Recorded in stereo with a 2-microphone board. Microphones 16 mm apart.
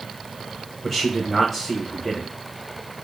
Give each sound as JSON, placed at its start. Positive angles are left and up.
{"t": 0.8, "sound": "a man speaking", "side_deg": 5, "distance_m": 0.9}